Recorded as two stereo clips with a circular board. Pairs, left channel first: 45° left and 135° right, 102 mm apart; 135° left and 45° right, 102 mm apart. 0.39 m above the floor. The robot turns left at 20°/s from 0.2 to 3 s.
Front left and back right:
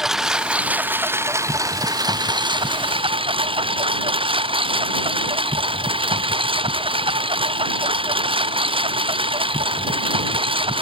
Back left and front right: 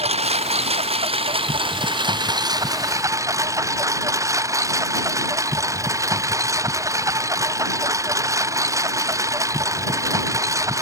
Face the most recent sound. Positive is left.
turn(degrees=-105)